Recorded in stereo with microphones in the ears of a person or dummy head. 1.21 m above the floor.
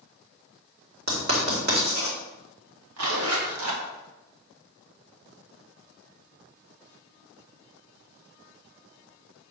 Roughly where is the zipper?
Right.